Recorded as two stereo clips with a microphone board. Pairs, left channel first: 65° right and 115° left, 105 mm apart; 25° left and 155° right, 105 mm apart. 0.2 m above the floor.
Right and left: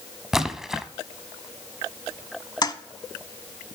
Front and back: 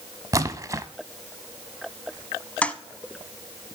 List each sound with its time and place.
0.3 s a splash: 165° right, 0.6 m
2.6 s a toilet flushing: 50° right, 0.7 m